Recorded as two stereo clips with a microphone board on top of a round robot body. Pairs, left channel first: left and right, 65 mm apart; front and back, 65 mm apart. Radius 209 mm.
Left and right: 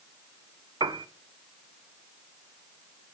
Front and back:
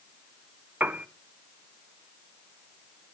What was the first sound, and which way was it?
A piano, 115° right.